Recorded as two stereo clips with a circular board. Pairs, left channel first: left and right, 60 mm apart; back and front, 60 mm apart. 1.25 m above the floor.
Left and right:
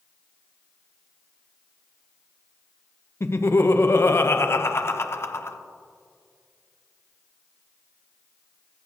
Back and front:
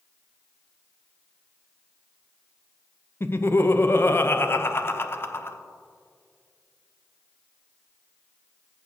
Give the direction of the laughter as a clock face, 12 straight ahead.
8 o'clock.